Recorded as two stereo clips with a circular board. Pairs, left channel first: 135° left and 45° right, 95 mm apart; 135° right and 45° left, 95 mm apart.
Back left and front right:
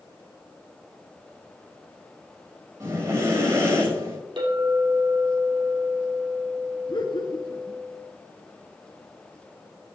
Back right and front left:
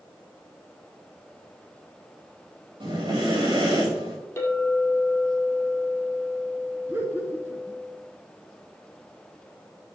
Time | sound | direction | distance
2.8 | breathing | 10° left | 6 m
4.4 | a clink | 70° right | 5 m
6.9 | laughter | 110° left | 2.5 m